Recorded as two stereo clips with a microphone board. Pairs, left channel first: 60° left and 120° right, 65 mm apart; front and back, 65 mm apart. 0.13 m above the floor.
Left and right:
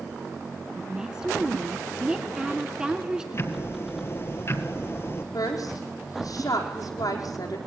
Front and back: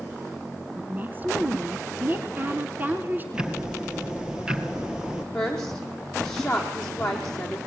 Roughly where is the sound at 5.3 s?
Left.